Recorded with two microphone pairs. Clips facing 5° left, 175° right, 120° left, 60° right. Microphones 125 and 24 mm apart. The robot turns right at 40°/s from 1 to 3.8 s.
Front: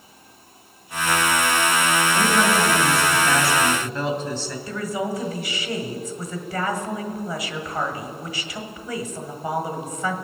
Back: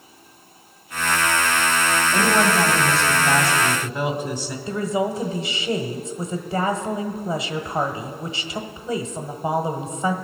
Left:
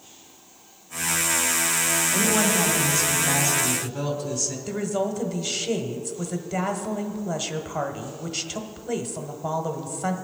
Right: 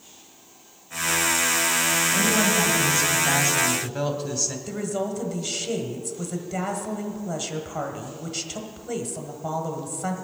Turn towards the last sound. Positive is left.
turn(degrees=-170)